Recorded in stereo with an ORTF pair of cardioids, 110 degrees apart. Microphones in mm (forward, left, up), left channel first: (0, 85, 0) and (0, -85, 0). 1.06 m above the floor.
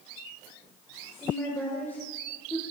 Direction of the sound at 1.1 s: 15° left.